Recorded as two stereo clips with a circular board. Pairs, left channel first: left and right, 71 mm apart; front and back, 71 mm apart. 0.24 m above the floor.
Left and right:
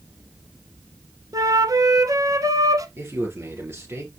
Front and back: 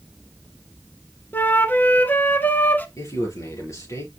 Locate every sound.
1.3 s a flute: 60° right, 0.8 m
3.0 s a man speaking: 40° right, 5 m